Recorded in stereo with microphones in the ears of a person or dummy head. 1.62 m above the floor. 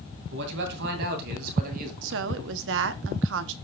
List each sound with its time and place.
0.3 s a man speaking: 65° right (ahead or behind), 2.5 m; by 1.9 s 45° right (ahead or behind), 2.5 m
2.0 s a woman speaking: 65° right (ahead or behind), 0.8 m